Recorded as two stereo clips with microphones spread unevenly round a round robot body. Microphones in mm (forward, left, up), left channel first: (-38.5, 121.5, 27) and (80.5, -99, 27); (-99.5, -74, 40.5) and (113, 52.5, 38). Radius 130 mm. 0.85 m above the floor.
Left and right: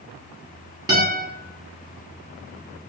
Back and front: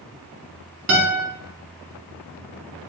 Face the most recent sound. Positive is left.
turn(degrees=15)